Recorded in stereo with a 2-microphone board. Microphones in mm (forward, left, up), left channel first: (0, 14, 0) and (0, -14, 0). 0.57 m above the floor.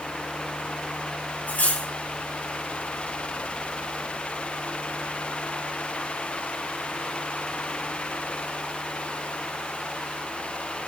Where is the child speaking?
No child speaking in this recording.